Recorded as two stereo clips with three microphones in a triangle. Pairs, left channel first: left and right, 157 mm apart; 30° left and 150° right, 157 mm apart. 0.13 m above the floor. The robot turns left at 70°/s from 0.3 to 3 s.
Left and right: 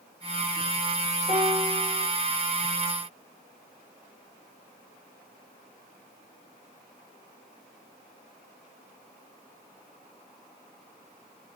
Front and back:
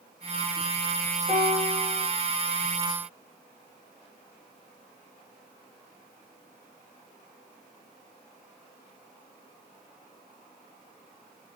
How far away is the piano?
About 7.5 m.